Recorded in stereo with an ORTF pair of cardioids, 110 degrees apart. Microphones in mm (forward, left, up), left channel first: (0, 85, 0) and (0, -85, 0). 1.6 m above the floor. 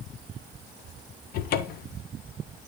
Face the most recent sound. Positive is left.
turn(degrees=65)